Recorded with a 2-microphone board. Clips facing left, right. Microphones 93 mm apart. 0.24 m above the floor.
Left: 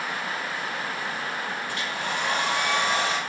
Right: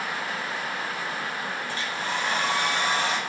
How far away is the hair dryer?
About 4.5 m.